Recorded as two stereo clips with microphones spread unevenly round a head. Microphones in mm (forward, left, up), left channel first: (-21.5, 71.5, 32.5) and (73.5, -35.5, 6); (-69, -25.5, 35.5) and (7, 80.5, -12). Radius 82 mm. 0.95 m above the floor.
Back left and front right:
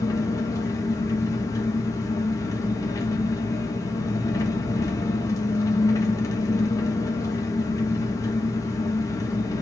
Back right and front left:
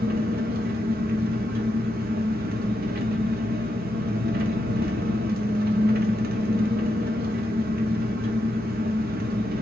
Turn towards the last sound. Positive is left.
turn(degrees=65)